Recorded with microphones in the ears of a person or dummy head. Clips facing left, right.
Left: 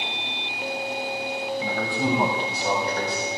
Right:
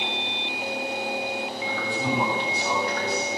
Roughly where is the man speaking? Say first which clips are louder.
Left 3 dB; left.